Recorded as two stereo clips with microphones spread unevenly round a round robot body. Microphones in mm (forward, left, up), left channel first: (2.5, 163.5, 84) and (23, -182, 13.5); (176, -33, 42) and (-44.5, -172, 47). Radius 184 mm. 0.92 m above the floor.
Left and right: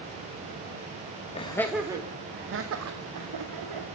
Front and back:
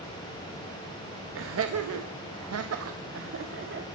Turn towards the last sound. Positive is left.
turn(degrees=-105)